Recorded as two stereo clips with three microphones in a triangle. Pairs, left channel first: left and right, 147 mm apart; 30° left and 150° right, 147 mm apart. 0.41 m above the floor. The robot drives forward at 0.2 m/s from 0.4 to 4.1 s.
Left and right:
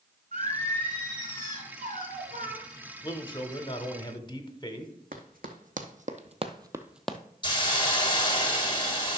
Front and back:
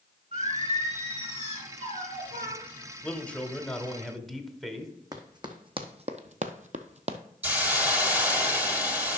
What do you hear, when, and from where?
0.3 s singing: 105° right, 1.9 m; by 2.6 s 120° right, 2 m
3.0 s a man speaking: 100° left, 0.9 m; by 4.9 s 120° left, 0.9 m
5.1 s running footsteps: 85° right, 1.4 m; by 7.2 s 175° left, 0.8 m
7.4 s a hiss: 135° left, 1.2 m